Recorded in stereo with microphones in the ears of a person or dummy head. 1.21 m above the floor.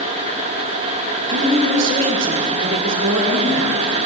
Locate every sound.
1.3 s a woman speaking: 75° right (ahead or behind), 2.5 m